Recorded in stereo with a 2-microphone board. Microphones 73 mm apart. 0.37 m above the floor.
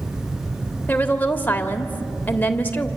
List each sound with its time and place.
0.9 s a woman speaking: 25° left (ahead or behind), 1.4 m